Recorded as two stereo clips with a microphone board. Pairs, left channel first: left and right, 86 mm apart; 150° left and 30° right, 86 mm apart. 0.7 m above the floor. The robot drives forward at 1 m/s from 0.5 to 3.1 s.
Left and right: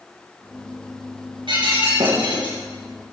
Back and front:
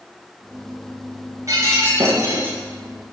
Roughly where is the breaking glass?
Right.